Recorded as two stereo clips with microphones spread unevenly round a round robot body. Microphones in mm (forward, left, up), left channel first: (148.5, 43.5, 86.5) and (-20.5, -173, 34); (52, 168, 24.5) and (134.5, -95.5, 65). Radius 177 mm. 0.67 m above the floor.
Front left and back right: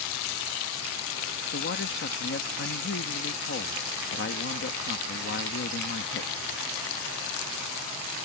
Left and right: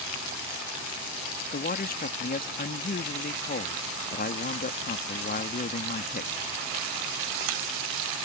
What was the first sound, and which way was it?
A man speaking, 90° left.